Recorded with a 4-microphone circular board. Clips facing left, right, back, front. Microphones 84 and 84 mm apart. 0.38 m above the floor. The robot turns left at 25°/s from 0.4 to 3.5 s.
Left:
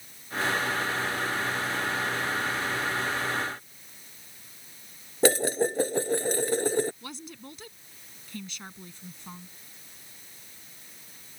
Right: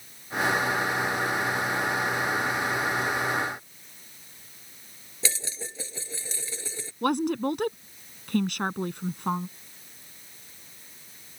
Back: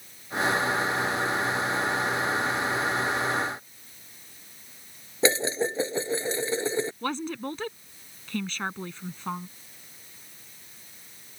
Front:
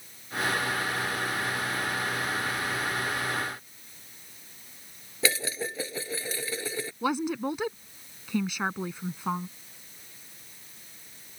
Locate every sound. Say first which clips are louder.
5.2 s dishes clattering: left 14 dB, back 6 dB; 120° left
7.0 s a woman speaking: right 18 dB, front 3 dB; 80° right